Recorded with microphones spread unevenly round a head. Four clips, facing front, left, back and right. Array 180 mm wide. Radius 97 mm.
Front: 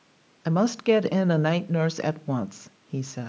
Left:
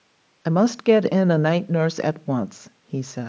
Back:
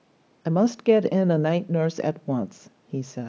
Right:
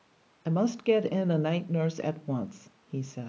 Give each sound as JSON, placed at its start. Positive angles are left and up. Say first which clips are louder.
{"t": 0.5, "sound": "a woman speaking", "louder": "left 8 dB, back 2 dB", "azimuth_deg": 130, "distance_m": 0.6}